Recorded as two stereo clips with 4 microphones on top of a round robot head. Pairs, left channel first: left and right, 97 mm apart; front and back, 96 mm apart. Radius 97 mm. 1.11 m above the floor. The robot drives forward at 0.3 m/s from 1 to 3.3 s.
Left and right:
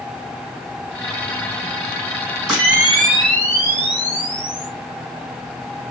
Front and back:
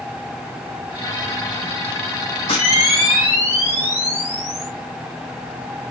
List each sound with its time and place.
2.5 s a camera shutter: 15° right, 0.9 m; by 4.7 s 30° right, 0.8 m